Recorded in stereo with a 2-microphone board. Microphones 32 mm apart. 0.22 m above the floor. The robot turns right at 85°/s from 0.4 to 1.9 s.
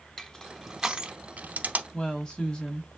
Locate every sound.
0.2 s crushing: 15° left (ahead or behind), 0.6 m; by 1.8 s 55° right (ahead or behind), 0.6 m
1.9 s a woman speaking: 25° left (ahead or behind), 1.3 m